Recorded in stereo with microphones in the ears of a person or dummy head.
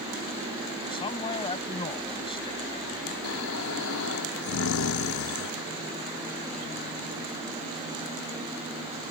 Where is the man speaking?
30° left (ahead or behind).